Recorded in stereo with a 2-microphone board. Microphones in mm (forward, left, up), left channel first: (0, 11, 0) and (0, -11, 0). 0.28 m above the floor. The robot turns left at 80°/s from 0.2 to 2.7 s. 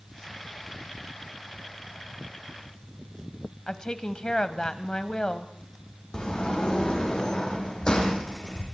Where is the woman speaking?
35° left (ahead or behind), 1.2 m.